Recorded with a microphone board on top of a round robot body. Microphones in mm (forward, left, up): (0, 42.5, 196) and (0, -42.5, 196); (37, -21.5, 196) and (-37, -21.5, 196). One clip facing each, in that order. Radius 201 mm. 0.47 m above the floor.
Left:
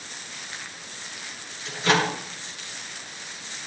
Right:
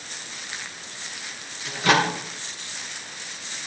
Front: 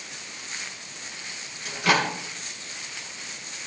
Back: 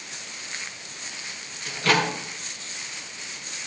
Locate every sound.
1.6 s a microwave: 75° right, 6 m